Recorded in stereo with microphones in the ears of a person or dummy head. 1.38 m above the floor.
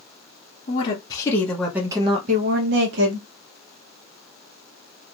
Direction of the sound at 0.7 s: 30° left (ahead or behind).